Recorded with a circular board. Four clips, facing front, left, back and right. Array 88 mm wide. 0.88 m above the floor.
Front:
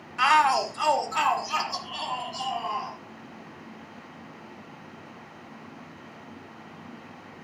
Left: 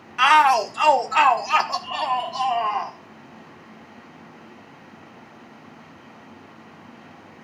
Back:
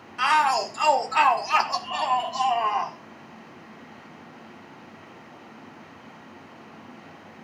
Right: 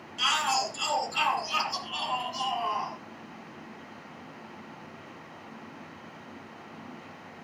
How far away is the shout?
About 1.2 m.